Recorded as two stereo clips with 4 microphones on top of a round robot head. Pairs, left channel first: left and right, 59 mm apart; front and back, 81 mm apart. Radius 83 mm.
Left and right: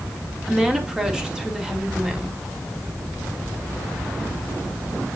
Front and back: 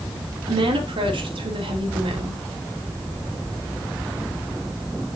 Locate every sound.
0.5 s a woman speaking: 170° right, 2.5 m